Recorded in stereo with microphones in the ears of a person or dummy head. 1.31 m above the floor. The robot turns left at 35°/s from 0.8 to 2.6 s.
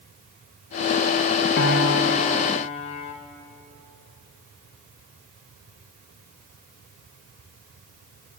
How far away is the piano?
About 2 m.